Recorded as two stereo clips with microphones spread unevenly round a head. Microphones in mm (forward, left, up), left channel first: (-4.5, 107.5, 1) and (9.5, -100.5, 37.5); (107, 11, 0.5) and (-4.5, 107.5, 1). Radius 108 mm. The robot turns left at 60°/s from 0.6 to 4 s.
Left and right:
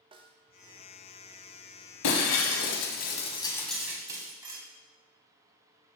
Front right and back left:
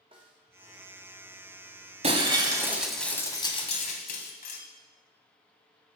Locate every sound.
0.1 s a snare drum: 155° right, 1.0 m
2.0 s breaking glass: 100° left, 1.6 m; by 4.6 s 15° right, 1.6 m